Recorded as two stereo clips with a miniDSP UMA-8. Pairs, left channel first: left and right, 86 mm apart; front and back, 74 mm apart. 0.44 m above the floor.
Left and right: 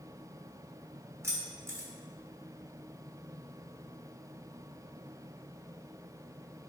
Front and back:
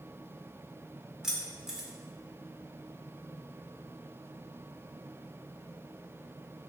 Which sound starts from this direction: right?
Keys jangling, at 1.2 s.